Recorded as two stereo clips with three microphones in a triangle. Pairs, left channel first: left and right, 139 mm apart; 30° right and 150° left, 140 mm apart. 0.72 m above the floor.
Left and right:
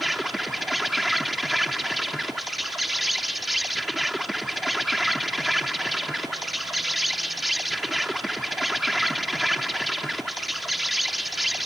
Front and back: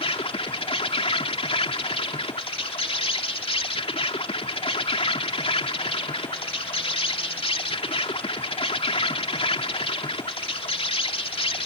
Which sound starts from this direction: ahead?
An insect, at 0.0 s.